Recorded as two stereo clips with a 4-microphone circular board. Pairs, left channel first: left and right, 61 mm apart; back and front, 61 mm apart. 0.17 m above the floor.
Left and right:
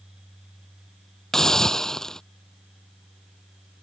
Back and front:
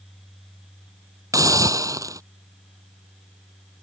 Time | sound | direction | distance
1.3 | a hiss | 10° left | ?